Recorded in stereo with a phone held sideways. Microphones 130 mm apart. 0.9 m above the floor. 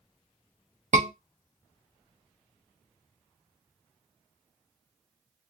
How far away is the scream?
About 0.8 m.